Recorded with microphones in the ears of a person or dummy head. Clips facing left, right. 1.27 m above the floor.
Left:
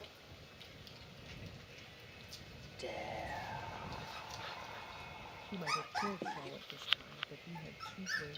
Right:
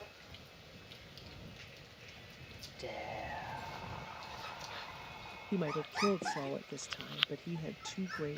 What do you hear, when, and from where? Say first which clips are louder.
2.8 s whispering: even; 5° left (ahead or behind)
5.5 s a woman speaking: right 7 dB; 75° right (ahead or behind)